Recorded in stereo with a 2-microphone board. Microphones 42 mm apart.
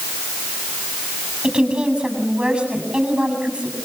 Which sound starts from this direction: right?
A woman speaking, at 1.4 s.